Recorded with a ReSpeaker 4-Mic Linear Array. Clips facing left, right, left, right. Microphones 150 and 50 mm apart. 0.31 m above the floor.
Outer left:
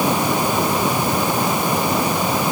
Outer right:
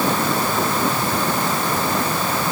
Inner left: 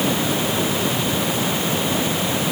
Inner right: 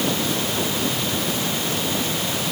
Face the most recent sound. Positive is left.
No sound to turn to.